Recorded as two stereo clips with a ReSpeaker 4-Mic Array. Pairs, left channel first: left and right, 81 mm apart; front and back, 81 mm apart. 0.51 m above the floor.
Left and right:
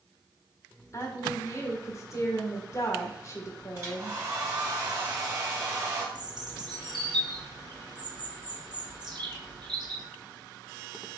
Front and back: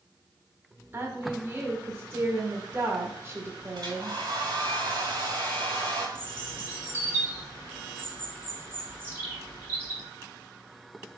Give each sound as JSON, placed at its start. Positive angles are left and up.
{"t": 0.9, "sound": "a woman speaking", "azimuth_deg": 130, "distance_m": 1.5}
{"t": 3.8, "sound": "a hair dryer", "azimuth_deg": -145, "distance_m": 3.5}
{"t": 6.2, "sound": "a bird", "azimuth_deg": -115, "distance_m": 3.5}